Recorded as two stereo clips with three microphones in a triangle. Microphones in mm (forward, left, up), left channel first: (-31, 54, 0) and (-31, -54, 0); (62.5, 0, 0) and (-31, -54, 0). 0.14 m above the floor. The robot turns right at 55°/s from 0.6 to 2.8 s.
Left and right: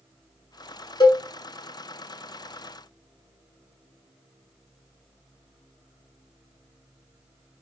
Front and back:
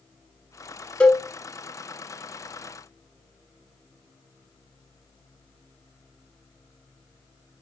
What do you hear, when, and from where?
1.0 s a cowbell: 100° left, 0.7 m; by 1.2 s 115° left, 0.7 m